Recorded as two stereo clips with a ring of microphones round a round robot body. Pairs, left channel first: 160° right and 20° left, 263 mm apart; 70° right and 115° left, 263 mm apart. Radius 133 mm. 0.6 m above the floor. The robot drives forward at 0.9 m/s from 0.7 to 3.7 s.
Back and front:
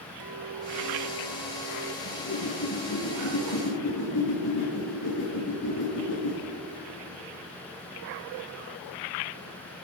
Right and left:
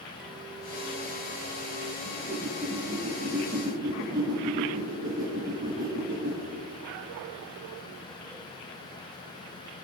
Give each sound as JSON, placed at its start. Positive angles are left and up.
{"t": 0.2, "sound": "a clink", "azimuth_deg": 25, "distance_m": 1.7}
{"t": 2.0, "sound": "a whoosh", "azimuth_deg": -170, "distance_m": 7.0}